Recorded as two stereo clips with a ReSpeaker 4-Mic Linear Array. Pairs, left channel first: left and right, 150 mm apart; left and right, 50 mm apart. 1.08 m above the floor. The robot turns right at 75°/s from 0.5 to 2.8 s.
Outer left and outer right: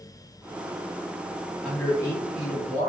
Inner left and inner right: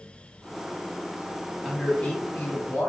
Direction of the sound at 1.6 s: 5° right.